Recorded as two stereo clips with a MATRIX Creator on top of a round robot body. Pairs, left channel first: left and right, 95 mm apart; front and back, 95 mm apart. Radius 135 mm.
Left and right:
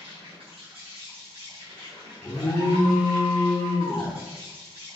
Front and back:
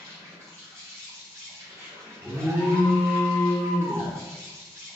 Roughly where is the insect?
Behind right.